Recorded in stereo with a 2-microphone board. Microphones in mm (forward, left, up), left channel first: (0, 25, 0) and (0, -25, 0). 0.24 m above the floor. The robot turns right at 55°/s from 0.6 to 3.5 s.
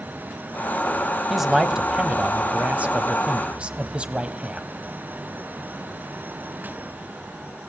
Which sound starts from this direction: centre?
A man speaking, at 1.3 s.